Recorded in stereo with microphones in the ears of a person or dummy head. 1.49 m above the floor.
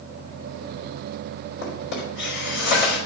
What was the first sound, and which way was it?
A drawer, 75° left (ahead or behind).